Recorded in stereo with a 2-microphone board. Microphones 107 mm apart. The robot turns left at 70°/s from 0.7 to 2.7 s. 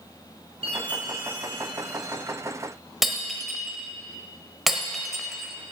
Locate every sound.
0.6 s a chime: 115° right, 3.5 m; by 2.2 s 140° left, 3.5 m
3.0 s breaking glass: centre (ahead or behind), 1.3 m